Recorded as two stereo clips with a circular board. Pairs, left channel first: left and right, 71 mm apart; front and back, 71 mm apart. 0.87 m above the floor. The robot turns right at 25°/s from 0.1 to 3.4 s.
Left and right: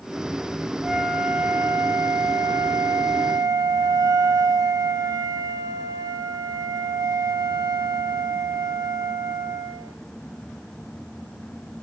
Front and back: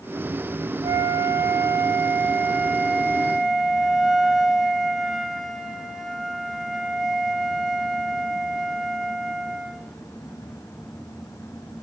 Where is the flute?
160° right, 1.5 m; by 10.0 s 95° right, 1.5 m.